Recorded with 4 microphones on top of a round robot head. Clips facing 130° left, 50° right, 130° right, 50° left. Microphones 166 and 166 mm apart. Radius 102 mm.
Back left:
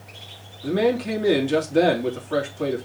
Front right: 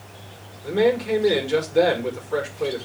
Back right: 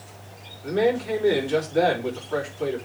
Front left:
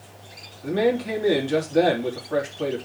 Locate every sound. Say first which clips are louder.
0.6 s a man speaking: front right 1 dB, even; 100° left, 3 m